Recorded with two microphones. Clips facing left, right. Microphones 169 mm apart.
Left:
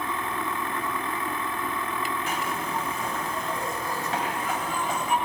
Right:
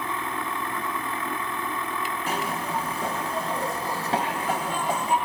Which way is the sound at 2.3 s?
35° right (ahead or behind).